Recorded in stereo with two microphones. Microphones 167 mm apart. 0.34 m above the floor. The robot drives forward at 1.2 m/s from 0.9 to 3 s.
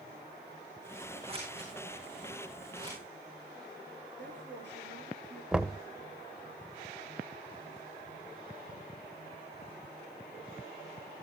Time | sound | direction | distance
1.3 | scissors | 35° right (ahead or behind) | 8 m
4.2 | a woman speaking | 75° right (ahead or behind) | 5.5 m
5.5 | knocking | 5° right (ahead or behind) | 0.6 m